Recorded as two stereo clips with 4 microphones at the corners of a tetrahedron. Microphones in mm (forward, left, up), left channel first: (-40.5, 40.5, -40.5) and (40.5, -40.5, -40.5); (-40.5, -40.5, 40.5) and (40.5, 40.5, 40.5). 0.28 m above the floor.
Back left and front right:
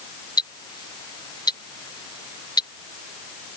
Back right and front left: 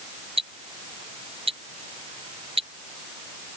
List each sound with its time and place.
0.4 s ticking: 80° left